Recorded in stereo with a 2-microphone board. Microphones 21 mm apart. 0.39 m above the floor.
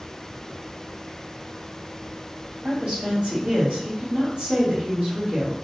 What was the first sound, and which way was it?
A woman speaking, 55° right (ahead or behind).